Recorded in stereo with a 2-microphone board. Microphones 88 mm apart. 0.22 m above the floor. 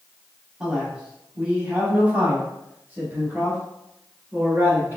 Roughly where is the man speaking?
Centre.